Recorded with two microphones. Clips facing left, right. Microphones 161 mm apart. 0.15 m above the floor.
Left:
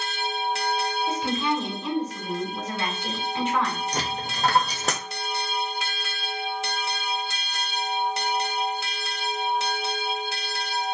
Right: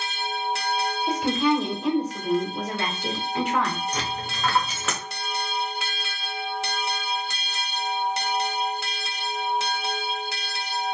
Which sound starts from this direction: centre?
A woman speaking, at 1.1 s.